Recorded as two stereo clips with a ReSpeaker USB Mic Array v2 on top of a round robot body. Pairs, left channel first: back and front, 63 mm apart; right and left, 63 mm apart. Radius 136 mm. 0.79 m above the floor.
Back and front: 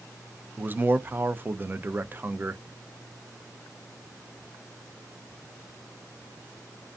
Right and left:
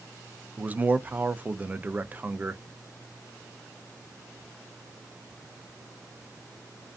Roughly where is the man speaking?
Ahead left.